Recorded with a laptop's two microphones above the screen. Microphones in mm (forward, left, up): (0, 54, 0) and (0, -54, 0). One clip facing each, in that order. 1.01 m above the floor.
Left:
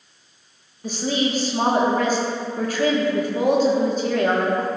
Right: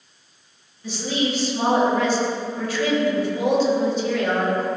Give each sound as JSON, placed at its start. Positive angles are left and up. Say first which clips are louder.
{"t": 0.8, "sound": "a woman speaking", "louder": "left 1 dB", "side_deg": 45, "distance_m": 1.1}